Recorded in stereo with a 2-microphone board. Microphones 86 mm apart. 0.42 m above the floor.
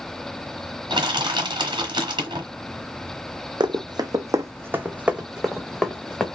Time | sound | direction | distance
0.9 | crushing | 70° right (ahead or behind) | 1.1 m
3.6 | running footsteps | 60° right (ahead or behind) | 0.8 m